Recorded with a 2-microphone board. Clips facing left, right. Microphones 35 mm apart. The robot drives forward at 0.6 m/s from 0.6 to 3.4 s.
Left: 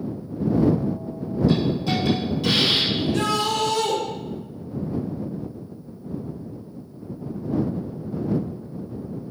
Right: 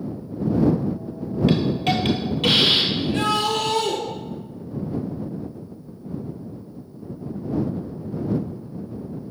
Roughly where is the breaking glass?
I don't hear breaking glass.